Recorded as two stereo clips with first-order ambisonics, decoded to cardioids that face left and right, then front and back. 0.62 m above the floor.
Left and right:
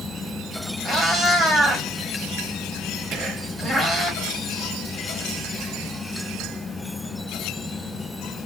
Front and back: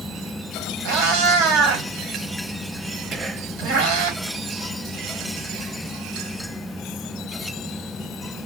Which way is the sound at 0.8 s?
Straight behind.